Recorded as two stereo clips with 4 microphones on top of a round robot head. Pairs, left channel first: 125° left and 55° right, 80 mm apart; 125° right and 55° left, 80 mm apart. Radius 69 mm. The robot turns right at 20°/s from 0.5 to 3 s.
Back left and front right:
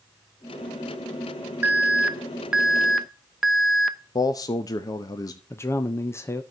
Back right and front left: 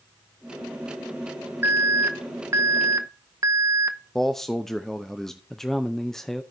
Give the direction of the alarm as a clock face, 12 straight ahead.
12 o'clock.